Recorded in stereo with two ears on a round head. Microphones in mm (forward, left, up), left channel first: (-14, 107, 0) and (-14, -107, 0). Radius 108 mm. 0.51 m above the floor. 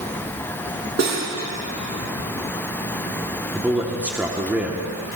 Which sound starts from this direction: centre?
A man speaking, at 3.5 s.